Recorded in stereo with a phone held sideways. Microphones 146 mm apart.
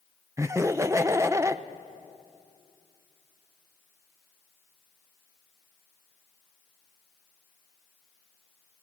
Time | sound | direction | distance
0.4 | laughter | 20° right (ahead or behind) | 0.5 m